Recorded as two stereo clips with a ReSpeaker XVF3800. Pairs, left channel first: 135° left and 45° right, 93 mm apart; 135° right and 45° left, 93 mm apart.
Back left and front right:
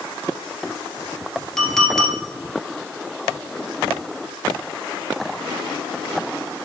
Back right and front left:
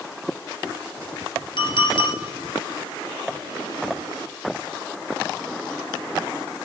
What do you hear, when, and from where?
1.6 s a clink: 140° right, 1.7 m